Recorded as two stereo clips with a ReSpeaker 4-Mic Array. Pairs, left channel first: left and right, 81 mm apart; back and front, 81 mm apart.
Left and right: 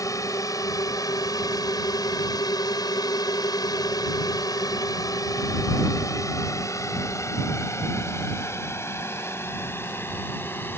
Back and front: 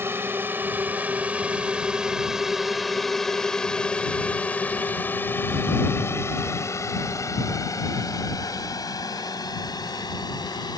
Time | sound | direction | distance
0.0 | a drone | 55° left | ?